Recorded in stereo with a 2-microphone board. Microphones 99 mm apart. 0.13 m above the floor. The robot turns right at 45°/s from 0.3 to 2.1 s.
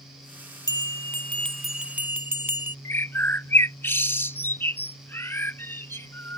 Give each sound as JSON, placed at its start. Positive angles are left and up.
{"t": 0.7, "sound": "a bell", "azimuth_deg": 135}
{"t": 2.9, "sound": "a bird", "side_deg": 20}